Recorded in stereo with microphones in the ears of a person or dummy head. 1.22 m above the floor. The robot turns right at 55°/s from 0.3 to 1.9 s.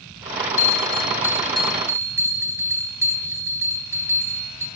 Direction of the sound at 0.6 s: 125° left.